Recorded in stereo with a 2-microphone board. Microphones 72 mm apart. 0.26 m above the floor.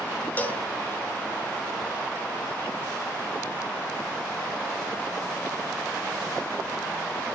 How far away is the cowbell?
About 1.3 m.